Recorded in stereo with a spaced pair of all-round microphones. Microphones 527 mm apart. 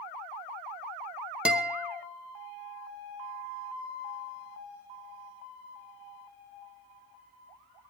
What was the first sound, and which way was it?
A guitar, centre (ahead or behind).